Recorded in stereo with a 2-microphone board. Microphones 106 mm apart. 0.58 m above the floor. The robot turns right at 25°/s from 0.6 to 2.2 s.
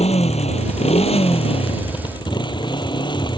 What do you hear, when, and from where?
0.0 s a motorcycle: 95° left; by 3.4 s 135° left